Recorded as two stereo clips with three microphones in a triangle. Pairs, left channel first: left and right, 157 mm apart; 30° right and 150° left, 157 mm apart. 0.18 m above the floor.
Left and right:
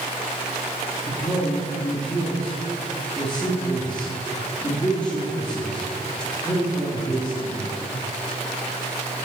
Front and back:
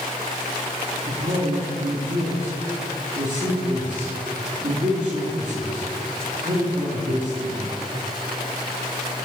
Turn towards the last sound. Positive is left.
turn(degrees=130)